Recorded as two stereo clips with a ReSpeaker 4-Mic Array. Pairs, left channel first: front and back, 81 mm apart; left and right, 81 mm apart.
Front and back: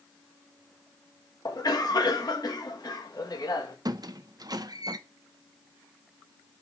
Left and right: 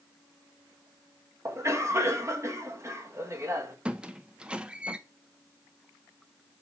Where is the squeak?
165° right, 0.6 m.